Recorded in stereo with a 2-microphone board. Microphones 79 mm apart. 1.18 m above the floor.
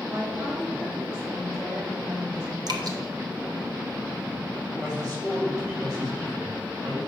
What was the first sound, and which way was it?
A woman speaking, 60° right (ahead or behind).